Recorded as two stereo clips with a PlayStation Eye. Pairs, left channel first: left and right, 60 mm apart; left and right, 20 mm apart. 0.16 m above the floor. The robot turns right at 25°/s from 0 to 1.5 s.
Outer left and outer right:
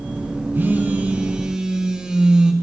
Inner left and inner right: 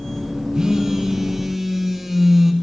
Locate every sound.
0.5 s a phone buzzing: 35° right (ahead or behind), 1.8 m; by 2.5 s 15° right (ahead or behind), 1.8 m